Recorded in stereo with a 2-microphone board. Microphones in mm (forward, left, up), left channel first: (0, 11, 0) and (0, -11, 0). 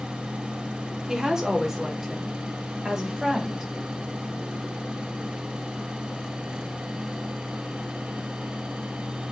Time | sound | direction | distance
1.1 | a woman speaking | 20° right (ahead or behind) | 3 m